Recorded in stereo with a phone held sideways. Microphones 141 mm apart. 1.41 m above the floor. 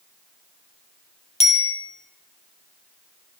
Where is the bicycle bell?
50° left (ahead or behind), 3 m.